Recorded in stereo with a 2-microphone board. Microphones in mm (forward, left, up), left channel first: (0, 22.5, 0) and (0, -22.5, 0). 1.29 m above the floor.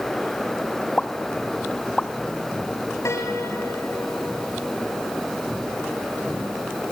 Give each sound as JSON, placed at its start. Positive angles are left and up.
{"t": 1.0, "sound": "a pop", "side_deg": 25, "distance_m": 1.1}
{"t": 3.0, "sound": "a piano", "side_deg": 70, "distance_m": 5.5}